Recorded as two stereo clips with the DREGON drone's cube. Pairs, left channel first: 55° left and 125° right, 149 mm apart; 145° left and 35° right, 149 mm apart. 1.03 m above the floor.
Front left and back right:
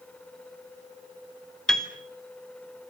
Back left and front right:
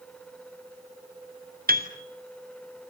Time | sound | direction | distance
1.7 | a piano | 30° right | 2.5 m